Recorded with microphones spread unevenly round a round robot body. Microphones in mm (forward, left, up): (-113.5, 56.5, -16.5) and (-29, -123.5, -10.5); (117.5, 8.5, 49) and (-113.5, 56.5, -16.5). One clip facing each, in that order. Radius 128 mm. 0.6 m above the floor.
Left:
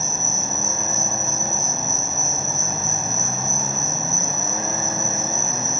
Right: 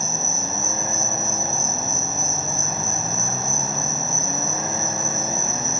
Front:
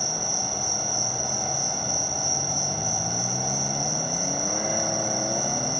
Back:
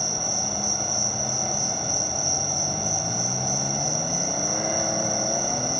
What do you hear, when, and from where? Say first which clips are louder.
0.0 s an insect: even, back 1 dB; 125° right, 3.5 m